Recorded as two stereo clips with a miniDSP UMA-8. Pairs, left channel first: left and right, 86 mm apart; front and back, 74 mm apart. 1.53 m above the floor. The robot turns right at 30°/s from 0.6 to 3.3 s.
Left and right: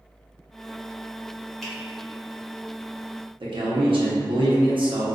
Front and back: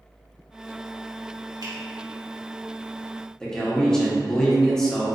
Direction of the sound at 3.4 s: 80° right.